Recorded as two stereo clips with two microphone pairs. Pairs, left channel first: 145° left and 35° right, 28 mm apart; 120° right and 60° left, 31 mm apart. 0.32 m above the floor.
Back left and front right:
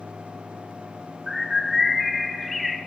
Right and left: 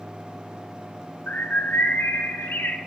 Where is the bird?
125° right, 0.6 m.